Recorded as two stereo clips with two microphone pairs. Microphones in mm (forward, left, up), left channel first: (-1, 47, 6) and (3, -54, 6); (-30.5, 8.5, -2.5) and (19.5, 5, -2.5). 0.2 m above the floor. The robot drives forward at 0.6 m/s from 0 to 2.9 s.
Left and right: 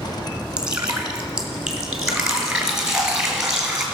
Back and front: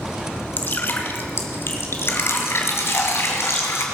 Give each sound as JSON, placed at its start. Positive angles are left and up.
{"t": 0.6, "sound": "dripping", "azimuth_deg": -165, "distance_m": 1.5}